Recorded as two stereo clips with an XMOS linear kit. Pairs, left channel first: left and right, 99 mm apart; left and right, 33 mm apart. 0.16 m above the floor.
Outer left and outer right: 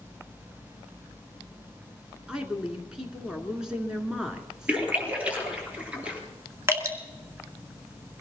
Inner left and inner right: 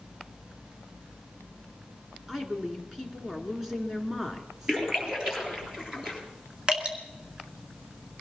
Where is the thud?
I don't hear a thud.